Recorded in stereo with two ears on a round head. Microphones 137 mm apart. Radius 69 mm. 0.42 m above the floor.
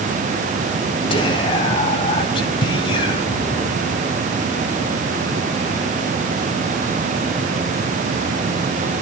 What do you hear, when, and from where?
1.1 s whispering: 35° left (ahead or behind), 3.5 m